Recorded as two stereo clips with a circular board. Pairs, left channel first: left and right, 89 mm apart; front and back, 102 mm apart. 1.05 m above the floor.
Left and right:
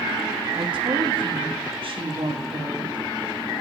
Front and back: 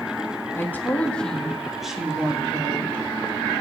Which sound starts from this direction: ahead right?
A woman speaking, at 0.6 s.